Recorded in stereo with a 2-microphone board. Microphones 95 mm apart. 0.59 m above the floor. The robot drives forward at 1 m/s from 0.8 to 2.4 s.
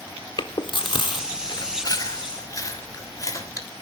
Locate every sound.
0.4 s chewing: 55° left (ahead or behind), 1.7 m; by 3.7 s 35° left (ahead or behind), 2.5 m